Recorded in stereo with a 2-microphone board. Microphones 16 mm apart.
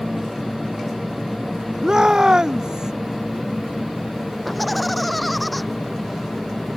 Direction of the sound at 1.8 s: 35° right (ahead or behind).